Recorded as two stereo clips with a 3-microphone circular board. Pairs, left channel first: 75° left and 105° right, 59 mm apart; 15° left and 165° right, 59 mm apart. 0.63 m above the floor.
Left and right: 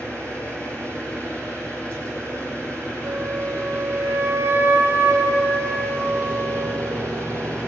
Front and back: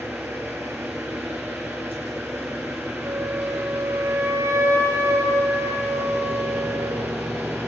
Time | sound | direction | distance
0.0 | an engine running | 140° left | 6 m
3.0 | a flute | 155° right | 7.5 m